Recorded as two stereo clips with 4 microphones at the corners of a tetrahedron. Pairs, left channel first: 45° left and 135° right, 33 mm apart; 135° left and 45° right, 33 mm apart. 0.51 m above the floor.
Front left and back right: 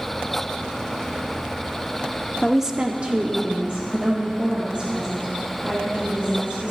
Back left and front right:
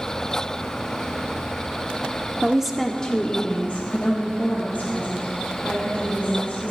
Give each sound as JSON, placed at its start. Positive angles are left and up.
{"t": 2.4, "sound": "a woman speaking", "azimuth_deg": -35, "distance_m": 0.8}